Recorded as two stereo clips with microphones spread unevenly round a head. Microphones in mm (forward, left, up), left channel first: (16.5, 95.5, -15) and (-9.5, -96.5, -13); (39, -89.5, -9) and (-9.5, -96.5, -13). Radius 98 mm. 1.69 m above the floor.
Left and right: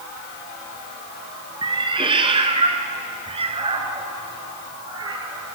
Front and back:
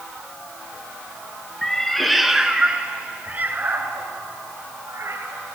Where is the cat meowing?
55° right, 1.9 m; by 5.5 s 165° right, 3 m.